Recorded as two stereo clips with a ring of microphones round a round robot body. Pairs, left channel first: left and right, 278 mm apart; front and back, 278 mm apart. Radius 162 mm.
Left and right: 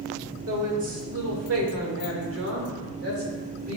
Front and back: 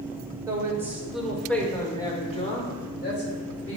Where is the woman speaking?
105° right, 2 m; by 3.8 s 30° right, 2 m.